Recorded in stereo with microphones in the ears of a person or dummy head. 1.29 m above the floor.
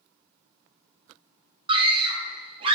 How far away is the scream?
About 0.6 m.